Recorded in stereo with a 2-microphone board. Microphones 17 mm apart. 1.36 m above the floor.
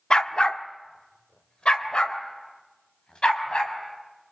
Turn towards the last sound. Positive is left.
turn(degrees=65)  # may be behind; listen again after turning